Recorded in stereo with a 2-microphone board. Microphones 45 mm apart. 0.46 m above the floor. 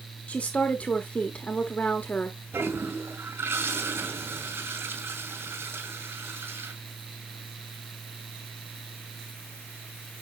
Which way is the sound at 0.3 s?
30° left (ahead or behind).